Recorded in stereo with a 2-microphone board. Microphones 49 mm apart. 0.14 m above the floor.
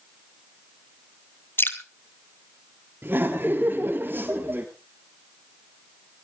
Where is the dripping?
50° left (ahead or behind), 1.2 m.